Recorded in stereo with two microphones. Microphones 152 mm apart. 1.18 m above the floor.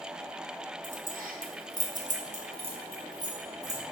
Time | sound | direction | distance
0.8 | keys jangling | 65° right (ahead or behind) | 0.7 m